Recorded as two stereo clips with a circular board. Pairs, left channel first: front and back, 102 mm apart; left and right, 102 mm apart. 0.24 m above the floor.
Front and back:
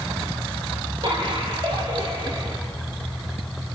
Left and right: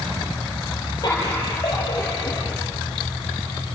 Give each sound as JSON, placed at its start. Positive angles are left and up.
{"t": 1.0, "sound": "laughter", "azimuth_deg": 140, "distance_m": 4.5}